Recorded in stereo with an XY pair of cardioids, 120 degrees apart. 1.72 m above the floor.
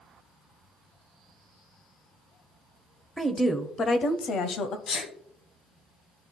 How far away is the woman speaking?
About 0.7 m.